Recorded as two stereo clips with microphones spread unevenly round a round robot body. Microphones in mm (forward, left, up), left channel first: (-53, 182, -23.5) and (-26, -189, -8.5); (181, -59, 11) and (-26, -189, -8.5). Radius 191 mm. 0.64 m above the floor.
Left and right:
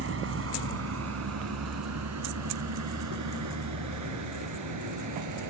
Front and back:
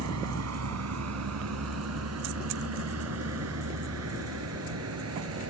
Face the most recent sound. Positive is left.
turn(degrees=-130)